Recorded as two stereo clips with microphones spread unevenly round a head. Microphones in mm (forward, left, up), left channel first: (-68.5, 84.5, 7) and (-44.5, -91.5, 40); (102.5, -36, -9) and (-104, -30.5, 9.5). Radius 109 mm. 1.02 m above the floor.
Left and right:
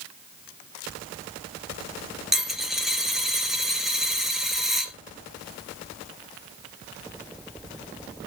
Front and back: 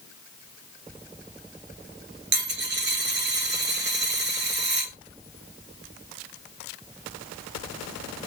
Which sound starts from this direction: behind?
A dropped coin, at 2.3 s.